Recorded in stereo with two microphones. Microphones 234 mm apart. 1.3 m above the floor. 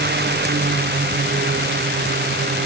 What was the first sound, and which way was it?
Only background noise.